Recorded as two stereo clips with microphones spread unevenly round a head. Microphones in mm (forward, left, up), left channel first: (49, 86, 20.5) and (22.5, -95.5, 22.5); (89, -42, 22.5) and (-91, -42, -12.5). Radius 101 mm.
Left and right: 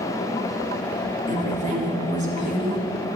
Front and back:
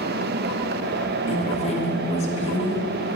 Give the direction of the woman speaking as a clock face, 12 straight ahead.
2 o'clock.